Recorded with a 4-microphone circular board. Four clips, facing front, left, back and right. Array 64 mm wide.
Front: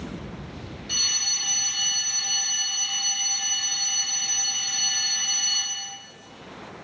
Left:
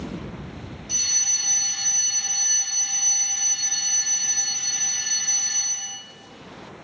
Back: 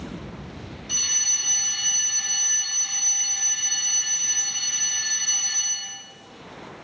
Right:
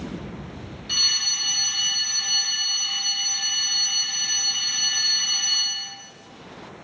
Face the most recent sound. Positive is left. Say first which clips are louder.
# right 6 dB, front 2 dB
turn(degrees=-85)